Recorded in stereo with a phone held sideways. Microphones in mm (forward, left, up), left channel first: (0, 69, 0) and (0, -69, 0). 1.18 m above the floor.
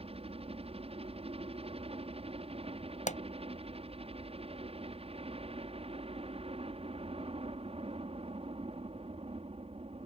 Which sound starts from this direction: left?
A pop, at 3.1 s.